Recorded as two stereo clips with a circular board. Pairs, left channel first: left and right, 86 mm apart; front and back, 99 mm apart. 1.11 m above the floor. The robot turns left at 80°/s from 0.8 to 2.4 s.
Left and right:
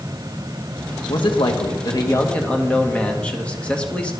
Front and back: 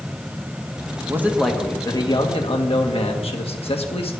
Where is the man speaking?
120° left, 1.5 m; by 4.1 s 15° left, 1.5 m.